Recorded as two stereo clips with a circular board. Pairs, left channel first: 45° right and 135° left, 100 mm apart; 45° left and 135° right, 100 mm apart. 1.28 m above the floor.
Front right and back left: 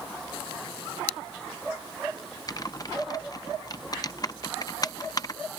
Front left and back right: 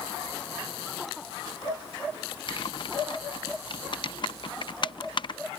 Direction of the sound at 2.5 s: 5° left.